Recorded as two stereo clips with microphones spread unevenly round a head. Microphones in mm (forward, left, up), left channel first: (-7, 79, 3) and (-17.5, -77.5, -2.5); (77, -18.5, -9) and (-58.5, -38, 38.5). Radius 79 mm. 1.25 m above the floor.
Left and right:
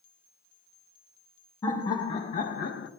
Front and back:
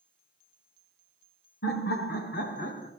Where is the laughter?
15° left, 1.6 m; by 2.9 s 65° left, 1.0 m.